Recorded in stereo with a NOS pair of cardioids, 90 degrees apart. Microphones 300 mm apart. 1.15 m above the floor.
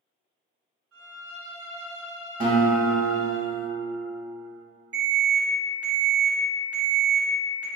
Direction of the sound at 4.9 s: 55° right.